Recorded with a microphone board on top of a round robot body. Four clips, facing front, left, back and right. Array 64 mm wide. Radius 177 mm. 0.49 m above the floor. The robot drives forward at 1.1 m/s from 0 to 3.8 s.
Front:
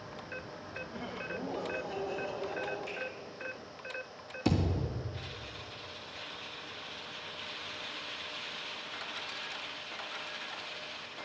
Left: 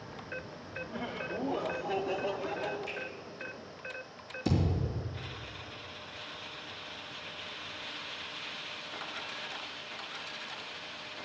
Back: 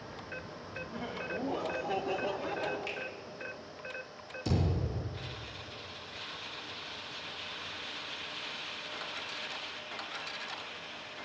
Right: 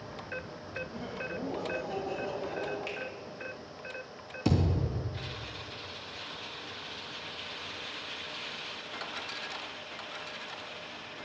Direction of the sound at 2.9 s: 130° right.